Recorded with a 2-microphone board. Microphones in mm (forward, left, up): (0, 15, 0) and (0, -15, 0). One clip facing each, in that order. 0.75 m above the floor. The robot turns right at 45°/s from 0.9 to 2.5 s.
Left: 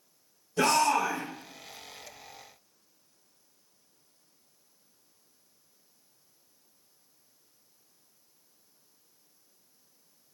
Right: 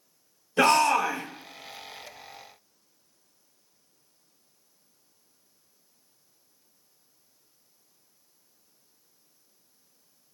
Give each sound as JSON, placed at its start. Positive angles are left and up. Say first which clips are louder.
{"t": 0.6, "sound": "a shout", "louder": "right 4 dB", "side_deg": -40, "distance_m": 0.6}